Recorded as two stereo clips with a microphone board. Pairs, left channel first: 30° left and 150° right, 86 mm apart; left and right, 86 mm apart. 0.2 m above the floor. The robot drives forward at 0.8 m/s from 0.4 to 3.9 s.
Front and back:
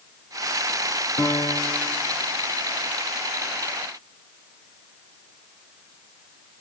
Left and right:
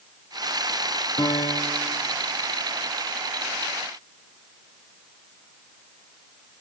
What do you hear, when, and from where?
1.2 s a piano: 80° left, 1.2 m; by 1.9 s 110° left, 1.2 m